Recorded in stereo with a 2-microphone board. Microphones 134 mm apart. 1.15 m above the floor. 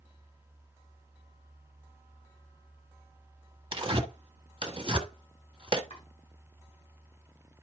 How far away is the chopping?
About 5.5 m.